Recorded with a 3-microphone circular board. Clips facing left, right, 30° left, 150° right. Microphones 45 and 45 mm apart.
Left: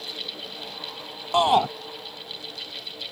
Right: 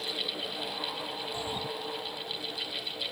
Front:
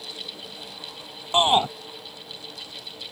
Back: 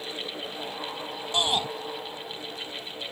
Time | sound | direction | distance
1.3 | a shout | 85° left | ?